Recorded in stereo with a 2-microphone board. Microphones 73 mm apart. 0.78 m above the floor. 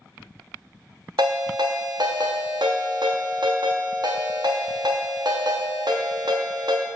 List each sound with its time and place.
1.2 s a ringtone: 80° right, 0.5 m